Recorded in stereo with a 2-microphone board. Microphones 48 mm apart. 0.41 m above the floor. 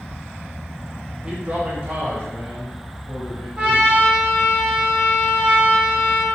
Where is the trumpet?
35° right (ahead or behind), 1.7 m.